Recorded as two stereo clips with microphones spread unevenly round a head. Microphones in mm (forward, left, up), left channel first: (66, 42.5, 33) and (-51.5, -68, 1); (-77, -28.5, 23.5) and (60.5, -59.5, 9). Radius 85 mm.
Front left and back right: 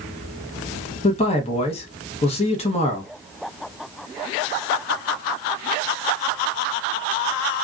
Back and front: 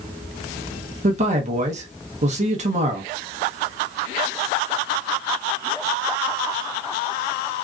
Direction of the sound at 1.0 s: 10° right.